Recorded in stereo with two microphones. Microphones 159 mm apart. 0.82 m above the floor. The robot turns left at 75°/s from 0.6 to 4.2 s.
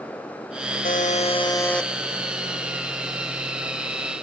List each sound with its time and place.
0.8 s a buzzer: 80° left, 0.7 m; by 1.9 s straight ahead, 0.7 m